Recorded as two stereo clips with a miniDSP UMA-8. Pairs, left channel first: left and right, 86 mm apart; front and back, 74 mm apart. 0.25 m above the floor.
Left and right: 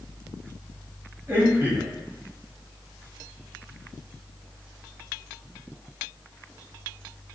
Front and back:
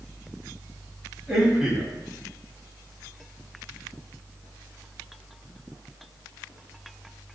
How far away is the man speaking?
About 1.2 m.